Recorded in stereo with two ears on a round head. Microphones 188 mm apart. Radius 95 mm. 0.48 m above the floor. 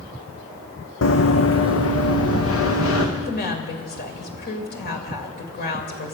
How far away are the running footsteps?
About 1.3 m.